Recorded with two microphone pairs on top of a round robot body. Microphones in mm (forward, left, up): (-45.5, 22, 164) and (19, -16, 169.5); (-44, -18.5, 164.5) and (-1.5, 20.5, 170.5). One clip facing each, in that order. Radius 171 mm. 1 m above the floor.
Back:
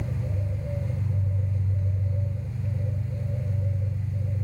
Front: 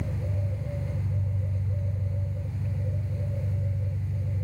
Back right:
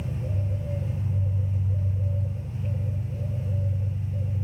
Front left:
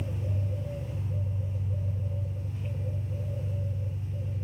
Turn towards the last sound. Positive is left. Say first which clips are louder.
# back 1 dB, back right 3 dB
turn(degrees=-145)